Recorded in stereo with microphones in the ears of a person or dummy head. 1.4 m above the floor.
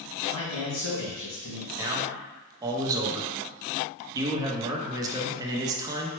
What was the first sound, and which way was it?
A man speaking, 80° left.